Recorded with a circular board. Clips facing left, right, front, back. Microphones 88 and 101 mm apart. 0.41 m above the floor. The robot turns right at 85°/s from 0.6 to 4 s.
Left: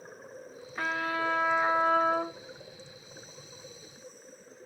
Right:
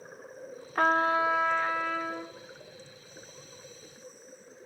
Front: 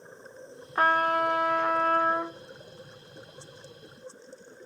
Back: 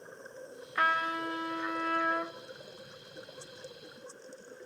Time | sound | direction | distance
0.8 | a trumpet | 55° right | 0.6 m